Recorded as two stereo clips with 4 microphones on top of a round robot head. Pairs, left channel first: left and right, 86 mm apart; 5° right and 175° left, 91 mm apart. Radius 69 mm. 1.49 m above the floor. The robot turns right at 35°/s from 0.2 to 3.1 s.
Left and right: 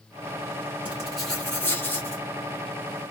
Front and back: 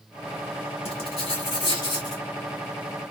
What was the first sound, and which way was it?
Writing, 15° right.